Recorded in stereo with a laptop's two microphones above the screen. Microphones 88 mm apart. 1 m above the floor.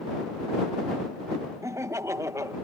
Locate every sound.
1.6 s laughter: 35° right (ahead or behind)